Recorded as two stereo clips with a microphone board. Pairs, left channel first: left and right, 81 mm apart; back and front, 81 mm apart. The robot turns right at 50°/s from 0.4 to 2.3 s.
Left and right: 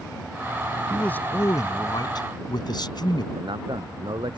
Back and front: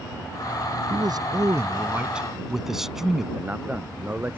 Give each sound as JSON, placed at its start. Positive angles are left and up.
{"t": 0.9, "sound": "a man speaking", "azimuth_deg": 15}
{"t": 3.4, "sound": "a man speaking", "azimuth_deg": -70}